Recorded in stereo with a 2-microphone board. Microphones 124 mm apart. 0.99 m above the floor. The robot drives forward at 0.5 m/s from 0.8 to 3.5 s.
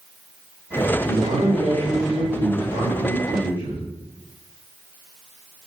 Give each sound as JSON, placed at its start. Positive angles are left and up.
{"t": 1.1, "sound": "a man speaking", "side_deg": -65, "distance_m": 2.0}